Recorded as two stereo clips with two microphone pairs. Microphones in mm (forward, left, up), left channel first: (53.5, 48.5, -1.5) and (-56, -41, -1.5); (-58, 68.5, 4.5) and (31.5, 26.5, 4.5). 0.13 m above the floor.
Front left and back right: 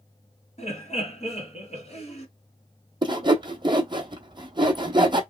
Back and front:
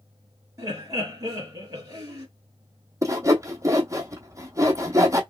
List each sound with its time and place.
0.6 s laughter: 20° left, 2.5 m
3.0 s sawing: 85° right, 0.8 m